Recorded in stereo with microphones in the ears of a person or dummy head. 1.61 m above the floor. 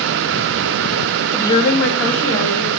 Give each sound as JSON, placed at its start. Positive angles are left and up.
{"t": 1.3, "sound": "a woman speaking", "side_deg": -5, "distance_m": 0.5}